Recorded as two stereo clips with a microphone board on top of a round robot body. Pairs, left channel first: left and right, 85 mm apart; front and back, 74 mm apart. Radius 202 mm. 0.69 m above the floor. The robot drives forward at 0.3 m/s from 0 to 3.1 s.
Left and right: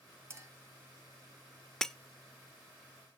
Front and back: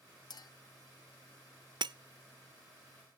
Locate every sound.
0.3 s a clink: 30° right, 1.4 m; by 0.5 s 35° right, 1.3 m
1.8 s breaking glass: 175° left, 0.5 m